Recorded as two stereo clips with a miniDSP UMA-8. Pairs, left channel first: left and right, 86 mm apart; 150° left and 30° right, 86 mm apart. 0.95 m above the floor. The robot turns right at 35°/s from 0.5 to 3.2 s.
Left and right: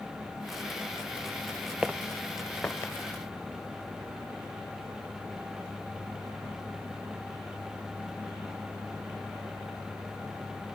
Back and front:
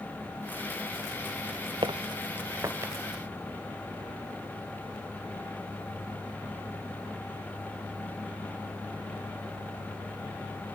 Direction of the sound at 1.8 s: 15° right.